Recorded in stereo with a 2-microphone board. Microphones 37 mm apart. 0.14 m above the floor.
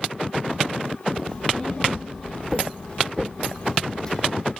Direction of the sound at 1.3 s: 25° left (ahead or behind).